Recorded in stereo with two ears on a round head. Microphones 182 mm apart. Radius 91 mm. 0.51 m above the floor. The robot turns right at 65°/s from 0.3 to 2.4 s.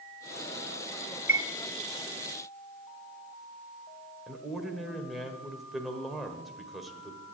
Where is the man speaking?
Centre (ahead or behind), 1.6 m.